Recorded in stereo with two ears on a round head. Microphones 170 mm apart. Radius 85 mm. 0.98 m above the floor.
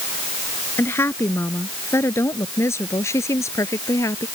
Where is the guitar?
No guitar in this recording.